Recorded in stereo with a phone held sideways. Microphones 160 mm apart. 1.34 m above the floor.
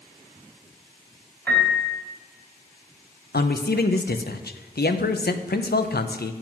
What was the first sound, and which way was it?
A piano, 15° left (ahead or behind).